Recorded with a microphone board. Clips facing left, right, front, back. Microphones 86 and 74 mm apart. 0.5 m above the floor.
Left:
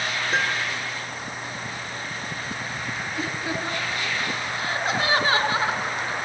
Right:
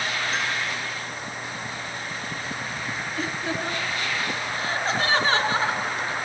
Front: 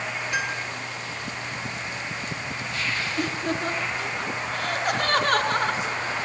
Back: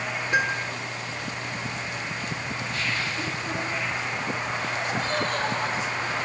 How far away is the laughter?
About 6 m.